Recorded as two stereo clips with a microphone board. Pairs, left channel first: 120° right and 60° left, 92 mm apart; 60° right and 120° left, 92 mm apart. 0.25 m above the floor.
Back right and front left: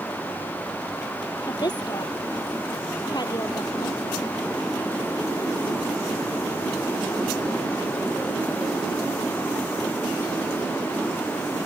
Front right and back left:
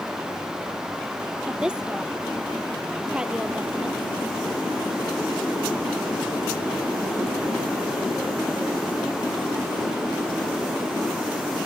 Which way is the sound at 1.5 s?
160° right.